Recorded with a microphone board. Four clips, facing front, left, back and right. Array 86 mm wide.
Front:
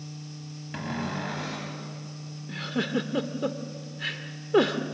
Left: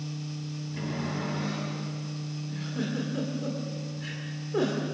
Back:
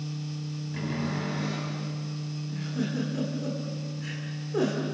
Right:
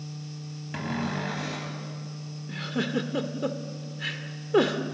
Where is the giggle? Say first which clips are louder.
Right 5 dB, front 3 dB; 35° right, 1.4 m.